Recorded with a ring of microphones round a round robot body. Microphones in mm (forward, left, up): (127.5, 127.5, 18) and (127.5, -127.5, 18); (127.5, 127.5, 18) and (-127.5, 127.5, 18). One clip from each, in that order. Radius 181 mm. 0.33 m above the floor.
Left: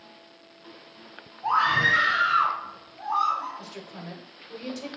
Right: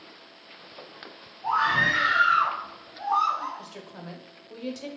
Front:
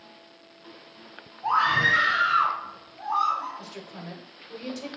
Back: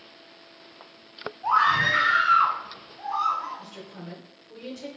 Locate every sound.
1.4 s a scream: 75° left, 2 m; by 3.6 s 90° right, 1.9 m
3.6 s a woman speaking: 15° right, 0.9 m